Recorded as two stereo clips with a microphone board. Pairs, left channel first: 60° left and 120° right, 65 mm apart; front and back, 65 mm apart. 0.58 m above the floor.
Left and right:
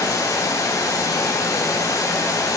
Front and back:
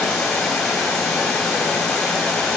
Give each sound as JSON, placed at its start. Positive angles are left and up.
{"t": 0.0, "sound": "running water", "azimuth_deg": 80, "distance_m": 3.0}